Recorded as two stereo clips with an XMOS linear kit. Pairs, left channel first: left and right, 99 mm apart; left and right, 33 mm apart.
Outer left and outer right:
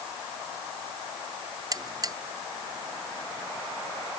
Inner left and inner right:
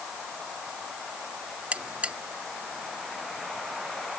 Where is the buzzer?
40° right (ahead or behind).